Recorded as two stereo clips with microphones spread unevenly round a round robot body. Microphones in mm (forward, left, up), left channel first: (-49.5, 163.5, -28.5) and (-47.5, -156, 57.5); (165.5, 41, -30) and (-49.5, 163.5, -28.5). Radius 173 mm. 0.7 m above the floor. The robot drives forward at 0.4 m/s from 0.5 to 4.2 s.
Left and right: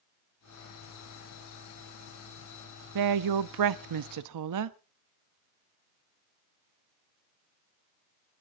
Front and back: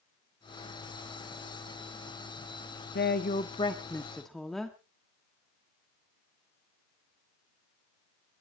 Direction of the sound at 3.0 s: 70° right.